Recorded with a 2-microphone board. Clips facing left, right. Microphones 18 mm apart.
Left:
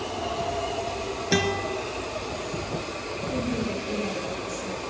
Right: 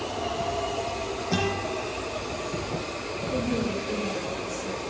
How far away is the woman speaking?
About 8.5 m.